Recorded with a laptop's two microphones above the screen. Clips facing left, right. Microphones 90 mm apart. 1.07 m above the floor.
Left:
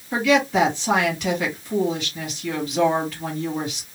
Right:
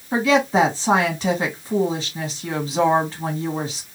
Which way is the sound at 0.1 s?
30° right (ahead or behind).